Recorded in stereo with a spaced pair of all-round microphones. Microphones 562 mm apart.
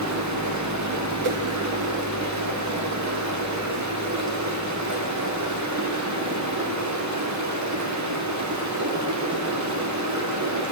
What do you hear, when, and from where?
0.0 s running water: 30° right (ahead or behind), 0.8 m
1.2 s a whoosh: 65° right (ahead or behind), 0.6 m